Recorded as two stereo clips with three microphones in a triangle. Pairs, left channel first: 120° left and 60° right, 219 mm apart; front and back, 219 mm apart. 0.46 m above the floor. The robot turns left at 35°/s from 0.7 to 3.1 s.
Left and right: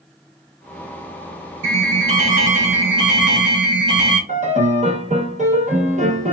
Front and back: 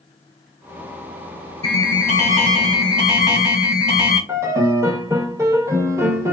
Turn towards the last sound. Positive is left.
turn(degrees=-105)